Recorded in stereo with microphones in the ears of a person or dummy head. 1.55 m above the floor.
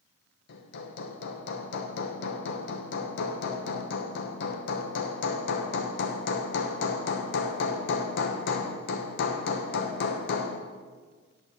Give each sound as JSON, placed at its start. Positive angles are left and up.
{"t": 0.5, "sound": "hammering", "side_deg": 65, "distance_m": 1.0}